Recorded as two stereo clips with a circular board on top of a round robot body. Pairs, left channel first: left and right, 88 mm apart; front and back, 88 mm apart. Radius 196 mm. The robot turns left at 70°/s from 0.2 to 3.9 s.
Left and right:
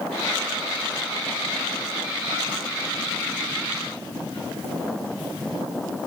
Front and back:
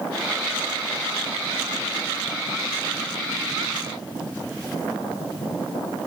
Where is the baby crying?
I don't hear a baby crying.